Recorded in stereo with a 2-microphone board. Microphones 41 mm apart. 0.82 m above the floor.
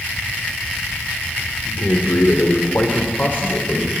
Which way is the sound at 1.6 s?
65° left (ahead or behind).